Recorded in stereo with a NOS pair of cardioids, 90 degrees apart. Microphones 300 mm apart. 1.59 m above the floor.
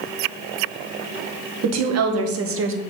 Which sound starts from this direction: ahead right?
A woman speaking, at 1.6 s.